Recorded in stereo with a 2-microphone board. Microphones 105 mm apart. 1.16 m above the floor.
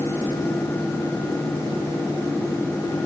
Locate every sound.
Only background noise.